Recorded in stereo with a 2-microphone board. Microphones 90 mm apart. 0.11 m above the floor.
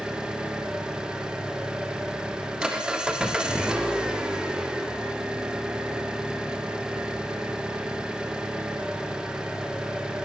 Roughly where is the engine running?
Centre.